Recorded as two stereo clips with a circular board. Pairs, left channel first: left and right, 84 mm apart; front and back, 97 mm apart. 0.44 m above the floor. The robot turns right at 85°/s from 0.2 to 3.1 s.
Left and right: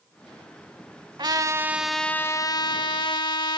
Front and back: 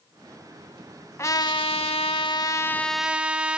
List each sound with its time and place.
1.2 s a trumpet: 60° right, 0.7 m; by 3.6 s 100° left, 0.7 m